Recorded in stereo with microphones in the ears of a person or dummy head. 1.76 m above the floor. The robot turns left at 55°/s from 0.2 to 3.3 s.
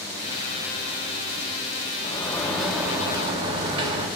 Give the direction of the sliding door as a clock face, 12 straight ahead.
11 o'clock.